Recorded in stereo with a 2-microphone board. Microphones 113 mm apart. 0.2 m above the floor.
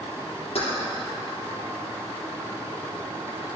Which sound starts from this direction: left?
Keys jangling, at 0.6 s.